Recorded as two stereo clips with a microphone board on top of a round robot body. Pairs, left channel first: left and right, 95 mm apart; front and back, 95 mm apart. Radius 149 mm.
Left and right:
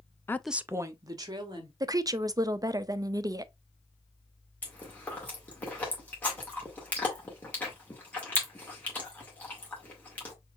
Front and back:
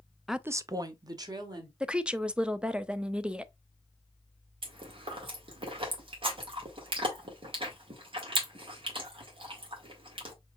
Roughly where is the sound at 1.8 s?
Right.